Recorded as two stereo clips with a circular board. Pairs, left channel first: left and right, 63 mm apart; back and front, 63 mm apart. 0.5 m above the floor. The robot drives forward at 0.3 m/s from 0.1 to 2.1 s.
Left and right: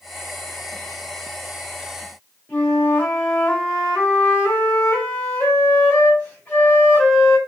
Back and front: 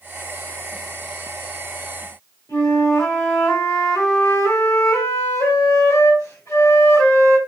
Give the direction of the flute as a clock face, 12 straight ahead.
7 o'clock.